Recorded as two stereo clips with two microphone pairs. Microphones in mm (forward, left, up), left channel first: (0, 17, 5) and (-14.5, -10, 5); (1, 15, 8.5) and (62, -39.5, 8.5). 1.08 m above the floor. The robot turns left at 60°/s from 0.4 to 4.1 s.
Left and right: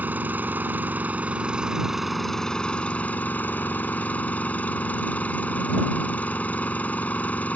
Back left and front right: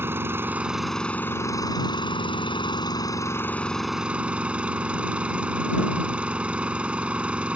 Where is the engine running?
105° right; by 7.6 s 35° left.